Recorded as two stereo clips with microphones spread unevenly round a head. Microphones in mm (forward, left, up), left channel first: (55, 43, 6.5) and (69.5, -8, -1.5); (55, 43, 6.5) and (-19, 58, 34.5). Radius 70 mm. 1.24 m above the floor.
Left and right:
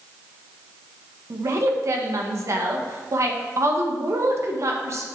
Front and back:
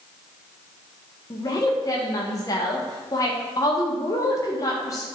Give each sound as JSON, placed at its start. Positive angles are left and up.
{"t": 1.3, "sound": "a woman speaking", "azimuth_deg": -60, "distance_m": 1.7}